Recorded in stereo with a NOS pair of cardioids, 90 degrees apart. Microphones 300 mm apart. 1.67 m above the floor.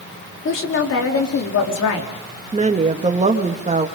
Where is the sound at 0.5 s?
45° left, 4 m; by 2.1 s 65° left, 4 m.